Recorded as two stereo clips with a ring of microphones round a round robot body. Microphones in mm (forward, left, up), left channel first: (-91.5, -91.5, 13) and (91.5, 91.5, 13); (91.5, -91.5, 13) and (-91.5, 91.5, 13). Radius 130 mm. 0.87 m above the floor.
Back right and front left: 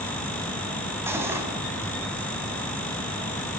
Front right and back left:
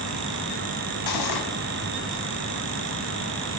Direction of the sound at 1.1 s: 35° right.